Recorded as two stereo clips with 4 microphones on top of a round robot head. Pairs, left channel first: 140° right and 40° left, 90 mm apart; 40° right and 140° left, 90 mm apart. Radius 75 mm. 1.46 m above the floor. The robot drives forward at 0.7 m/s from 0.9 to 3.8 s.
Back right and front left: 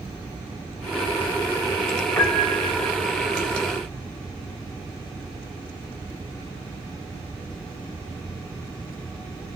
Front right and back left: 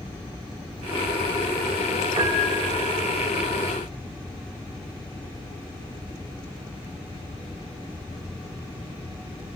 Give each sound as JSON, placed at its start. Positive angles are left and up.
{"t": 2.2, "sound": "a piano", "azimuth_deg": 170, "distance_m": 1.8}